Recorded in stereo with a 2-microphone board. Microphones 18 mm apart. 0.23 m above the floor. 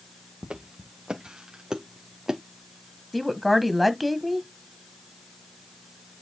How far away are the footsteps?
About 1.8 m.